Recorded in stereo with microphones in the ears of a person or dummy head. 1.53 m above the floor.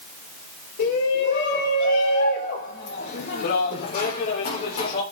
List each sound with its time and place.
0.8 s a shout: 65° left (ahead or behind), 4 m; by 5.0 s 30° left (ahead or behind), 4 m